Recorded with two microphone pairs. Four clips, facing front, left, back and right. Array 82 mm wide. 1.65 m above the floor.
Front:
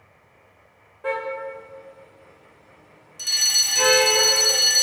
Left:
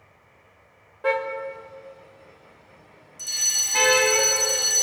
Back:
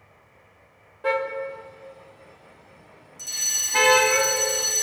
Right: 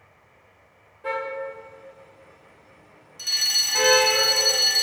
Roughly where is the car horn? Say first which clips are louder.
Left 4 dB, back 2 dB; left.